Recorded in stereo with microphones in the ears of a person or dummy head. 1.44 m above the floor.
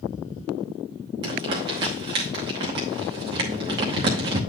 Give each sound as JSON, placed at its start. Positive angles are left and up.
{"t": 1.2, "sound": "crumpling", "side_deg": -25, "distance_m": 1.0}